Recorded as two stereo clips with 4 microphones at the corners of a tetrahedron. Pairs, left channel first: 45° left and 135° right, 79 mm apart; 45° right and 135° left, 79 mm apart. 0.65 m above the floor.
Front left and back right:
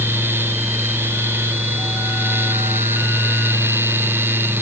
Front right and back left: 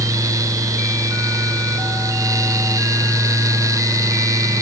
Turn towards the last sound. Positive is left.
No sound to turn to.